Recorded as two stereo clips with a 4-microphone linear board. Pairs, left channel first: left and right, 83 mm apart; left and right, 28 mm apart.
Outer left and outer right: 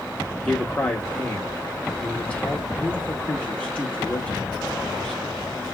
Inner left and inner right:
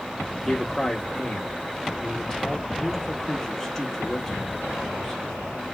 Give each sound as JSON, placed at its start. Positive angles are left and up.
{"t": 0.4, "sound": "a man speaking", "side_deg": 15, "distance_m": 0.7}